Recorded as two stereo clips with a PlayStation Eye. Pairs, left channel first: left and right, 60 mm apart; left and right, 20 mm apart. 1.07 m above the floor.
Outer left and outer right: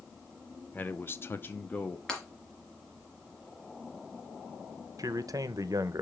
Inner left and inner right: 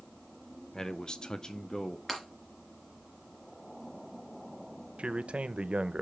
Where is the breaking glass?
10° left (ahead or behind), 2.5 m.